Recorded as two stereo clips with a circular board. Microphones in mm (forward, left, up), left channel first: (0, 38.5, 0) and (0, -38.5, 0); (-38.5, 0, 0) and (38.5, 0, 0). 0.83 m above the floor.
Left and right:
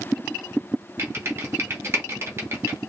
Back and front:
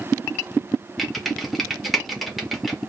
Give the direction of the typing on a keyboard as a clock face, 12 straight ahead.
3 o'clock.